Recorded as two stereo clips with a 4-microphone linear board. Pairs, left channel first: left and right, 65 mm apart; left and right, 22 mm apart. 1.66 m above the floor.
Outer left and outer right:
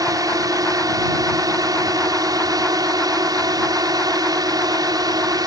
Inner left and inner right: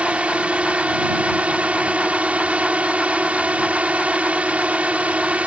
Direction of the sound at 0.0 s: 65° right (ahead or behind).